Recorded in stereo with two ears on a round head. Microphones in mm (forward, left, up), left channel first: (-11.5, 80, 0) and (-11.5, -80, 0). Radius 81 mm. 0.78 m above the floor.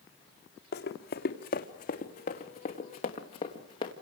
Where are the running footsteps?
55° left (ahead or behind), 2.5 m; by 3.9 s 25° left (ahead or behind), 3.5 m.